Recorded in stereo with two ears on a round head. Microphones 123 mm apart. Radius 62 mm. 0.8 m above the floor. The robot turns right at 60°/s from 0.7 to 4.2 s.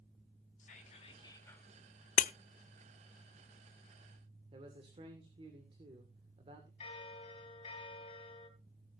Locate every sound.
0.6 s whispering: 115° left, 3.5 m; by 1.7 s 175° left, 3.5 m
2.2 s breaking glass: 60° left (ahead or behind), 0.6 m; by 2.3 s 50° left (ahead or behind), 0.6 m
4.5 s a man speaking: 40° right (ahead or behind), 2 m
6.8 s a bell: 40° left (ahead or behind), 4 m